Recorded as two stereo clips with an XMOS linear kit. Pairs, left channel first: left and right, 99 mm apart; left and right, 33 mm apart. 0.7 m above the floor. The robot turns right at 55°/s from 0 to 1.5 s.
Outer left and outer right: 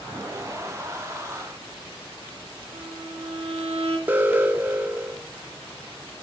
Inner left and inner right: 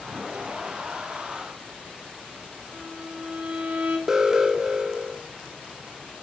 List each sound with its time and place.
2.7 s a violin: 75° right (ahead or behind), 2 m
4.1 s an alarm: 20° right (ahead or behind), 0.8 m